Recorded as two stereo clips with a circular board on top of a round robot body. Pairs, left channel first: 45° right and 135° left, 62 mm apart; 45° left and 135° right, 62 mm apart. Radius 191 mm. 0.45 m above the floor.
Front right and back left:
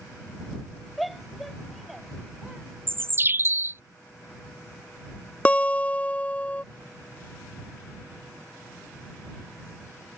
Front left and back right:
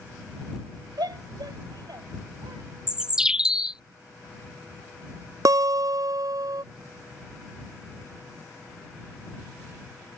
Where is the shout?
135° right.